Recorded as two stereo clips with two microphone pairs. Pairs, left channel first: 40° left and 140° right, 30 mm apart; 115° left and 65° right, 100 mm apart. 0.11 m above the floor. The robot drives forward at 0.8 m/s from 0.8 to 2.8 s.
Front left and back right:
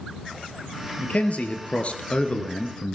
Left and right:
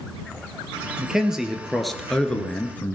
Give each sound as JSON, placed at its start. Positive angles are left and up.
{"t": 1.0, "sound": "a man speaking", "azimuth_deg": 20, "distance_m": 2.0}